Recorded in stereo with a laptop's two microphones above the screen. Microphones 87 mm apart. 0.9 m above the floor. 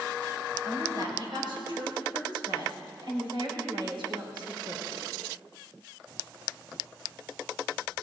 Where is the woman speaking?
55° right (ahead or behind), 5.5 m; by 5.0 s 80° right, 3 m.